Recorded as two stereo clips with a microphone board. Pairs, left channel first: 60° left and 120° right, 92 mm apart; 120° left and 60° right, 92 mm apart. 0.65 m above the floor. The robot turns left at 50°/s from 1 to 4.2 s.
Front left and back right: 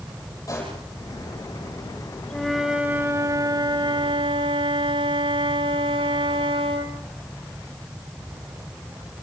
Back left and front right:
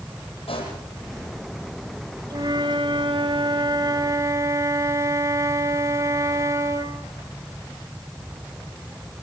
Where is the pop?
115° left, 10 m.